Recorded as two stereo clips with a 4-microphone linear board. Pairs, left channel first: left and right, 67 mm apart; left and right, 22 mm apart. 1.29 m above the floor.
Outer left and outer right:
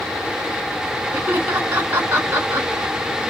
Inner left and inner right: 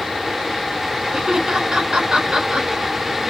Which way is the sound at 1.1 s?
25° right (ahead or behind).